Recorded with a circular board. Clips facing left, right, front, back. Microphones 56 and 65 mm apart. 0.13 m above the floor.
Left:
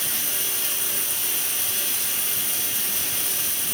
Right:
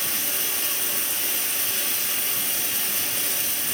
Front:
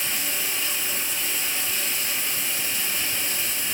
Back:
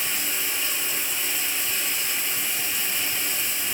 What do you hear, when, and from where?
0.0 s running water: 90° right, 1.3 m